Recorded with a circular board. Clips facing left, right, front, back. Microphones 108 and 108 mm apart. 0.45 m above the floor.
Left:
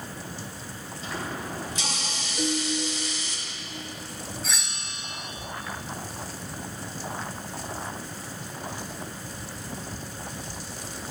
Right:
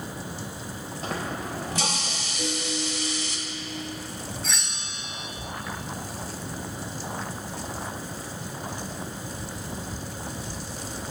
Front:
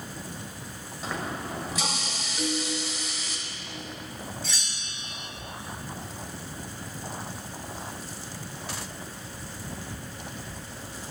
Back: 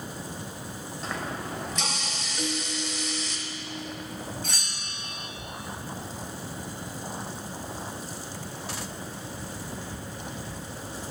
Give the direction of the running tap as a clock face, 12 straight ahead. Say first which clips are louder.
Right 2 dB, front 1 dB; 3 o'clock.